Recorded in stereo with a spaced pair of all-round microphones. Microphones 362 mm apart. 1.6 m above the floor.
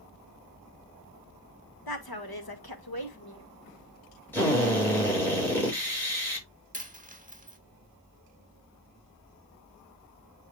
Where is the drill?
5° left (ahead or behind), 7 m.